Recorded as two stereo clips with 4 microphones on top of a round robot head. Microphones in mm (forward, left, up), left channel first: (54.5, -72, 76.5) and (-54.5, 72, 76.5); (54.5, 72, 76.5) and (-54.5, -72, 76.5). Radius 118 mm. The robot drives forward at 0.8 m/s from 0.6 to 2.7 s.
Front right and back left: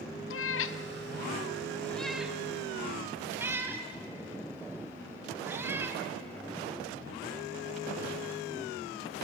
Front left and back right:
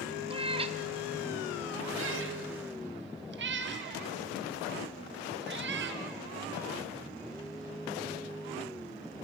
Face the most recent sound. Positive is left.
turn(degrees=-155)